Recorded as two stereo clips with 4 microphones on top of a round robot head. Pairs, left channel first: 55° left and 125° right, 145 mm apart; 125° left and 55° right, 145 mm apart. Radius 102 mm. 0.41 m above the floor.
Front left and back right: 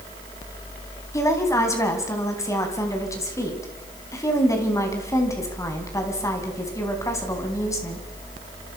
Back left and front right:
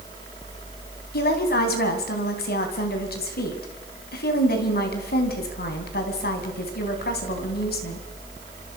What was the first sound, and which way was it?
A woman speaking, 125° left.